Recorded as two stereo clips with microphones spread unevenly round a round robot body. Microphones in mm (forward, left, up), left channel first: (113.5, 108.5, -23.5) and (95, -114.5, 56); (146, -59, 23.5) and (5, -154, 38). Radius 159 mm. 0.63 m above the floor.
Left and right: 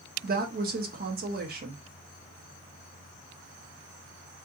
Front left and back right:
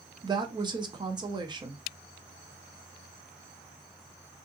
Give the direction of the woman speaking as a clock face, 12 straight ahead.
4 o'clock.